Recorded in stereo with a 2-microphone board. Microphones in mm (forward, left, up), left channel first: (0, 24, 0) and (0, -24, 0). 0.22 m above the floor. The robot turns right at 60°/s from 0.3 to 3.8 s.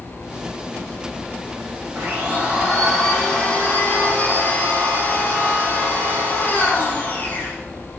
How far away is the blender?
About 6.5 m.